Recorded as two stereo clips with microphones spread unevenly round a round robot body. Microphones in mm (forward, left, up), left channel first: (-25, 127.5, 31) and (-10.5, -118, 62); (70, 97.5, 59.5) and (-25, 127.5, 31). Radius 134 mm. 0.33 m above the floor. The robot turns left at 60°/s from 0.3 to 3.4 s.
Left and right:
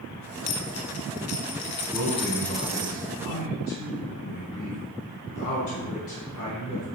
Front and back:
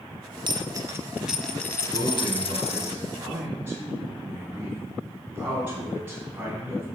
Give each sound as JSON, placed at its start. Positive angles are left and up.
{"t": 0.5, "sound": "a dropped coin", "azimuth_deg": 130, "distance_m": 1.1}
{"t": 1.9, "sound": "a man speaking", "azimuth_deg": -175, "distance_m": 3.0}